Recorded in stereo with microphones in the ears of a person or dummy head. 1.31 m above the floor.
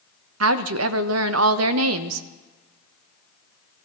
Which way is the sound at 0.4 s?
80° right.